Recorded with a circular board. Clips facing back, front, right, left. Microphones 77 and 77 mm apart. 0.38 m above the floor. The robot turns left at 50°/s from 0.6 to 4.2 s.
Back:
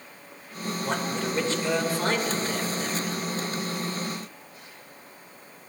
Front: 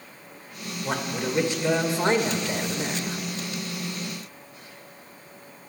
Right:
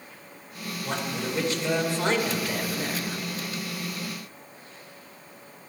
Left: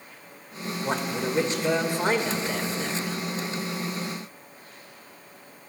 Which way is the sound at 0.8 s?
90° left.